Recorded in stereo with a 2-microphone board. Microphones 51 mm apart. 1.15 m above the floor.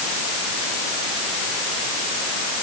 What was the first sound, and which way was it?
Only background noise.